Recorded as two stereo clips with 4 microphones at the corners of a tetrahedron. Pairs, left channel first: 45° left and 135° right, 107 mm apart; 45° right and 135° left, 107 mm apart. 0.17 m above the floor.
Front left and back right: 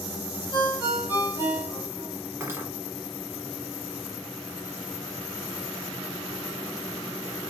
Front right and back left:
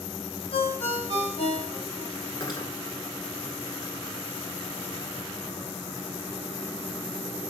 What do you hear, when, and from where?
0.5 s a ringtone: 70° right, 3.5 m
2.4 s cutlery clinking: 75° right, 1.1 m